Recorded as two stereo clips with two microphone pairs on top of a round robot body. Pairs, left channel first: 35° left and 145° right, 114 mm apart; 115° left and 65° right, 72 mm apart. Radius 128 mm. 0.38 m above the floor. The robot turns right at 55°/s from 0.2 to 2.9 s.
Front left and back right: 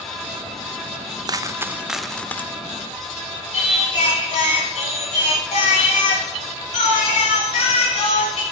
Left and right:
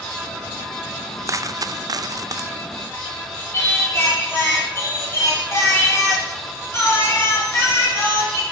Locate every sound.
1.3 s a dropped coin: 100° right, 0.6 m; by 2.5 s 35° right, 0.6 m
3.5 s singing: 60° left, 4 m